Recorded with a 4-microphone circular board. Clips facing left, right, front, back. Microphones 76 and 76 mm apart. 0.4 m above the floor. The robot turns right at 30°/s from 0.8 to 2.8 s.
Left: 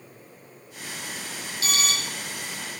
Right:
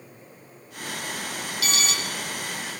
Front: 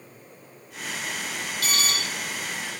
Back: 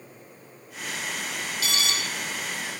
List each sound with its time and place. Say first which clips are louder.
1.6 s an alarm: left 1 dB, front 1 dB; 35° left, 2.5 m; by 1.9 s 45° left, 2.5 m